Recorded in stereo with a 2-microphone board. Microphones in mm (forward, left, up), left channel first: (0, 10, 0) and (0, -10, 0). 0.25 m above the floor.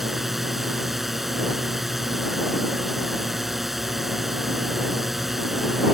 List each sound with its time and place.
0.0 s a drone: 10° right (ahead or behind)